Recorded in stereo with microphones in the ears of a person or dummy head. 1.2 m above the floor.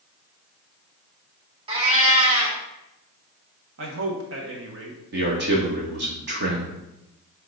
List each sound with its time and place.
1.7 s a cat meowing: 30° right (ahead or behind), 1.9 m
3.8 s a man speaking: 60° right (ahead or behind), 1.3 m
5.1 s a man speaking: 50° right (ahead or behind), 2.0 m